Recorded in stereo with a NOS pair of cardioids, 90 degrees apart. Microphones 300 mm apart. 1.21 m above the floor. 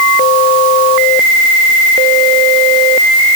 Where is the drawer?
I don't hear a drawer.